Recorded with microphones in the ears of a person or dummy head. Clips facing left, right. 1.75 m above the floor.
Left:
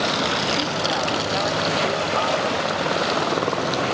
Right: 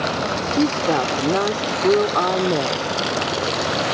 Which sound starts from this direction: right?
A woman speaking, at 0.5 s.